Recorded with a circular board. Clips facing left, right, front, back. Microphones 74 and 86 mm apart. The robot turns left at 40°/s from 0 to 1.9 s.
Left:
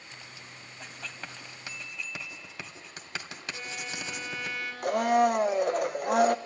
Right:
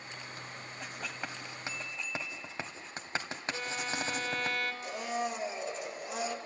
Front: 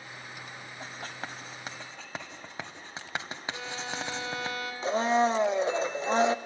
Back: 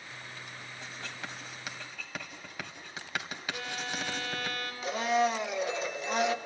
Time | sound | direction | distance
0.8 | writing | 5° right | 1.8 m
3.5 | a violin | 65° right | 3.5 m
4.8 | a blender | 60° left | 0.6 m